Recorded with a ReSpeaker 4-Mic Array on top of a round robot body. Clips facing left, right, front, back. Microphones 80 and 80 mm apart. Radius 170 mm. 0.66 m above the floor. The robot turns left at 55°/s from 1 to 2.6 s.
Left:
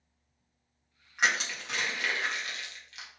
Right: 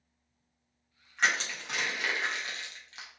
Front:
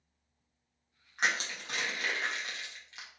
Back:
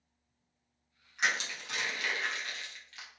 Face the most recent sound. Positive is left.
turn(degrees=-55)